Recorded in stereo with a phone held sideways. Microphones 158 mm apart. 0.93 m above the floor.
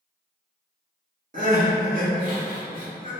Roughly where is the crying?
Right.